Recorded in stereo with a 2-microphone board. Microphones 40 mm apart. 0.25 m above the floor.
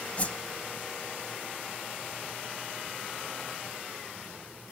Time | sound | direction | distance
0.2 | a whoosh | 40° left (ahead or behind) | 0.6 m